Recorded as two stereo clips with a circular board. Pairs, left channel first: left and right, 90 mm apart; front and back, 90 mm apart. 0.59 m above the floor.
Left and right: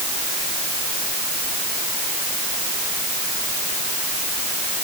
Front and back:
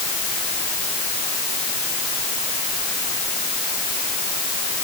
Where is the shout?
No shout in this recording.